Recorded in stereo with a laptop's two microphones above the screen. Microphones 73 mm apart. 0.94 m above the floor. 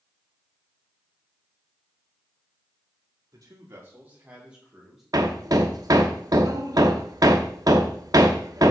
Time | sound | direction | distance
3.3 | a man speaking | 55° right (ahead or behind) | 2.0 m
5.1 | hammering | 55° right (ahead or behind) | 0.9 m